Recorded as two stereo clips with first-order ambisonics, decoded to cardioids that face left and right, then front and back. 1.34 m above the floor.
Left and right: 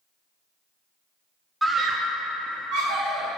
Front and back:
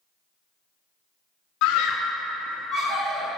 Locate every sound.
1.6 s a scream: straight ahead, 0.6 m; by 3.3 s 115° right, 1.8 m